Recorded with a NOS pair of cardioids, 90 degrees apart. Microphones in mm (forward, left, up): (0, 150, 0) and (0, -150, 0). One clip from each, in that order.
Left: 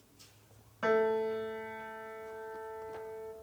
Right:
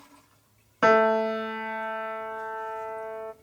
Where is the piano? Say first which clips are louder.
Right 9 dB; 65° right, 0.7 m.